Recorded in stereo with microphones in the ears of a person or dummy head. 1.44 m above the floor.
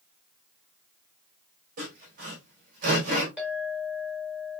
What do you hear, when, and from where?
1.8 s sawing: 50° right (ahead or behind), 3 m
3.4 s a clink: 5° right (ahead or behind), 2.5 m